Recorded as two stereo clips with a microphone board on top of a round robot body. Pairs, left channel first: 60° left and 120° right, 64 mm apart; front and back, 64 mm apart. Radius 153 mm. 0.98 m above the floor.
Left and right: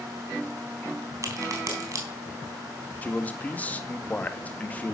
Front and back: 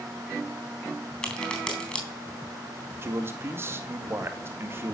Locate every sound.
1.2 s a crack: 75° right, 3.5 m
3.0 s a man speaking: 130° left, 2 m